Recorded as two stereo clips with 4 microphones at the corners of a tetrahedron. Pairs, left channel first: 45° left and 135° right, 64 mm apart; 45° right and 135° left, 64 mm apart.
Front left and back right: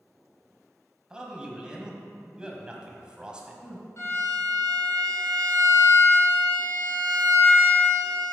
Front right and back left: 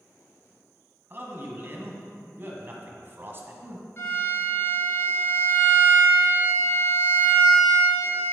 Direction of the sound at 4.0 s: Straight ahead.